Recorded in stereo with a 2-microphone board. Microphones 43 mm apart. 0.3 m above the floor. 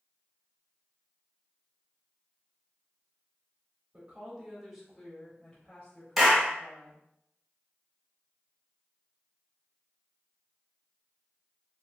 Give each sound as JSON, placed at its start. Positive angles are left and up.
{"t": 3.9, "sound": "a woman speaking", "side_deg": -25, "distance_m": 1.0}
{"t": 6.2, "sound": "a clap", "side_deg": 0, "distance_m": 1.3}